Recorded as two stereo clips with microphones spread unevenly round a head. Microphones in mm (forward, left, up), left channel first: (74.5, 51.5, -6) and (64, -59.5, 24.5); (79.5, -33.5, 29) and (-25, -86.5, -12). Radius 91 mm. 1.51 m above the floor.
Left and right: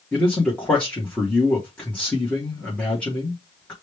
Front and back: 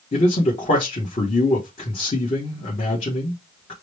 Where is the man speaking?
Straight ahead, 1.3 m.